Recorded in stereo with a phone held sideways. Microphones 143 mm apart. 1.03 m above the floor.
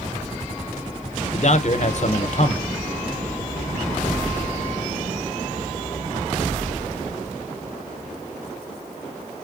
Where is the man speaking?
55° left (ahead or behind), 0.6 m.